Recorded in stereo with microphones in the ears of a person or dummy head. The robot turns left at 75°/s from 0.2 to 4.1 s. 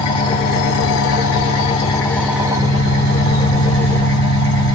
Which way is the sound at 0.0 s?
155° left.